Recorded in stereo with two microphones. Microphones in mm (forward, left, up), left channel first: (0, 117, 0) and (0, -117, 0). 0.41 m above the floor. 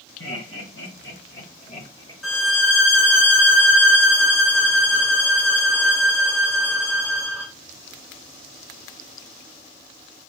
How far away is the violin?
About 1.1 m.